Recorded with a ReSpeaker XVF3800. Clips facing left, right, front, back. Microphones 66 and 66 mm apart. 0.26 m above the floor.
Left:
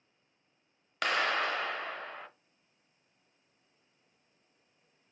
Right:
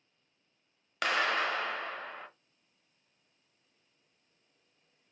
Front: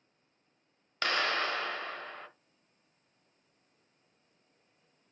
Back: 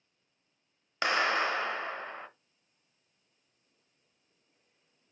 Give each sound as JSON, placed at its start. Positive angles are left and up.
{"t": 1.0, "sound": "a clap", "azimuth_deg": 180, "distance_m": 0.7}